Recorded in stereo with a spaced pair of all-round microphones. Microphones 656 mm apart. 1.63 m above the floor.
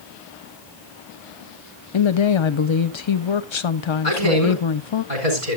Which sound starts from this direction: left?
A woman speaking, at 1.9 s.